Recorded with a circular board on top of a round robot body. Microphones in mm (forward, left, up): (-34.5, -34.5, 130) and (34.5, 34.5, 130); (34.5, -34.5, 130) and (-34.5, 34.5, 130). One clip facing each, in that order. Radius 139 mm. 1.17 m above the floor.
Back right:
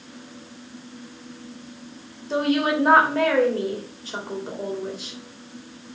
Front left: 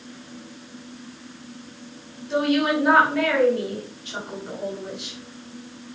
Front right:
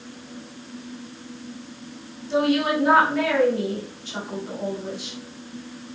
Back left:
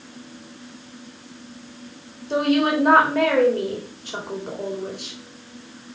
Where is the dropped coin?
I don't hear a dropped coin.